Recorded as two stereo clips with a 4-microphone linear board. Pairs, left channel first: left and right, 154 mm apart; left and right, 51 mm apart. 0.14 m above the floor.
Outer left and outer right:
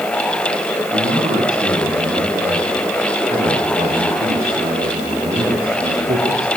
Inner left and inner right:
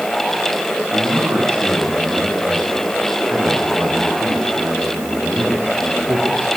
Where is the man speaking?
75° right (ahead or behind), 7 m; by 6.5 s 70° right (ahead or behind), 5 m.